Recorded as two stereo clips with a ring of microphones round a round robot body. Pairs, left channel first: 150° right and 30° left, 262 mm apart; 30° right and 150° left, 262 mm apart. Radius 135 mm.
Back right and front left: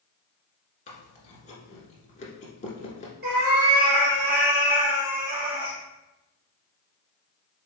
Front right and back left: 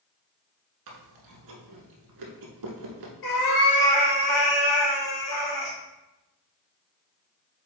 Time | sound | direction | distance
0.9 | chewing | 145° left | 1.0 m
3.2 | a cat meowing | 25° right | 2 m